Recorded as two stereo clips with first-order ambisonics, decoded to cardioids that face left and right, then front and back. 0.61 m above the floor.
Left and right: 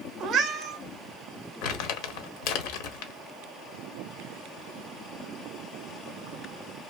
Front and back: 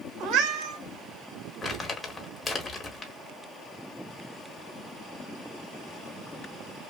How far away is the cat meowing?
About 0.6 m.